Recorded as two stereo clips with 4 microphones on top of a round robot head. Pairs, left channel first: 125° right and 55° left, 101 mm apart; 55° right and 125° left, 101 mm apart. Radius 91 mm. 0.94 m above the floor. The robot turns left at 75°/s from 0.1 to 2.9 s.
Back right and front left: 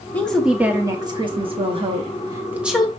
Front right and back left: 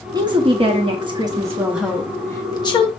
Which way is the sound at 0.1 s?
165° left.